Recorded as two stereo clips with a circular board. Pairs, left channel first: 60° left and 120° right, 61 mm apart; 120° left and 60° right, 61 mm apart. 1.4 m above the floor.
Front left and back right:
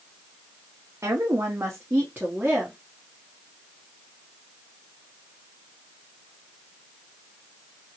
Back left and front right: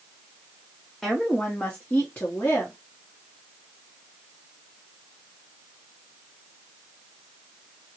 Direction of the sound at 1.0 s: 155° right.